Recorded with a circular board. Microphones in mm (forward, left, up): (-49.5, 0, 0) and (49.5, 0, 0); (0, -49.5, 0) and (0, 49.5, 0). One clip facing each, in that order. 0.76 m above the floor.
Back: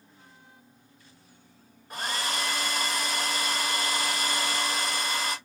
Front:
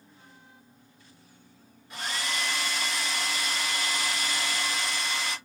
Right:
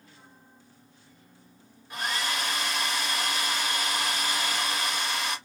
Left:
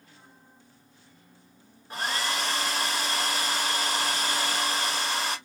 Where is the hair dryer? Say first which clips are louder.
Back 2 dB, left 1 dB; 140° left, 0.9 m.